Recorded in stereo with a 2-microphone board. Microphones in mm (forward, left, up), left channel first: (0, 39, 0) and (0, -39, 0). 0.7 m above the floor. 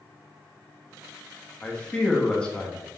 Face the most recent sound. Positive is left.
turn(degrees=15)  # may be behind; listen again after turning